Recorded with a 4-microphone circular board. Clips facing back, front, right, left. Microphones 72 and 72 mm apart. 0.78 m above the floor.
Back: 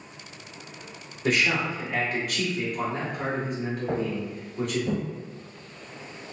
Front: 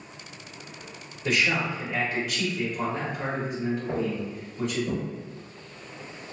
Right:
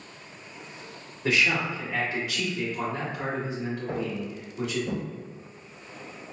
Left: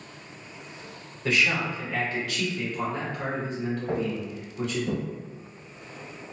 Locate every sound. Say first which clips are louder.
1.2 s a man speaking: back 1 dB, even; 155° right, 1.8 m
3.9 s footsteps: even, left 2 dB; 165° left, 1.2 m; by 5.0 s 170° right, 1.8 m